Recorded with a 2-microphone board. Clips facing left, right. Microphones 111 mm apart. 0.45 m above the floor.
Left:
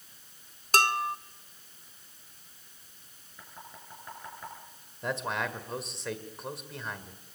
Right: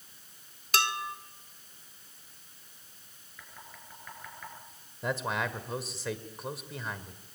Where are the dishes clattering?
40° left (ahead or behind), 0.8 m.